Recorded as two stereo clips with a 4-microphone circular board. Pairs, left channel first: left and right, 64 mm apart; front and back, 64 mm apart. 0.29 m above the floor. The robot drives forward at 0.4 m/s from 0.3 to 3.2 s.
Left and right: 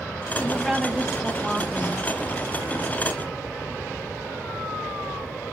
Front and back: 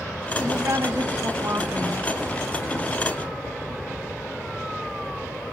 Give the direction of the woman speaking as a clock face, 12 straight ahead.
6 o'clock.